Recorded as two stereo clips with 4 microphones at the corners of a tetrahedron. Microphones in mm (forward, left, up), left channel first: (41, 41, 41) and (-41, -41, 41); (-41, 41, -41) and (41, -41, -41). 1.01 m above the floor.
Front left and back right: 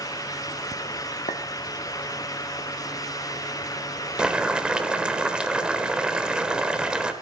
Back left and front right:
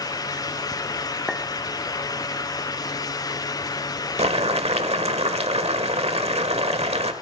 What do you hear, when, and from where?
1.3 s a clink: 40° left, 1.4 m
4.2 s boiling: 55° right, 1.2 m